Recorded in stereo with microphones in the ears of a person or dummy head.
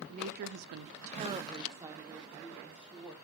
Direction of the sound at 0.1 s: 45° right (ahead or behind).